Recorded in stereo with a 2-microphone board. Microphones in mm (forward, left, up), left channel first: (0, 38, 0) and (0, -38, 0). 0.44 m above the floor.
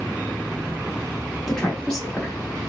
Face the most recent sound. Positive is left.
turn(degrees=5)  # may be behind; listen again after turning